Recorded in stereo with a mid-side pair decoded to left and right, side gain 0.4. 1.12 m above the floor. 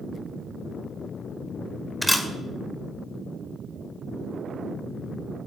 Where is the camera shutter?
5° left, 2.0 m.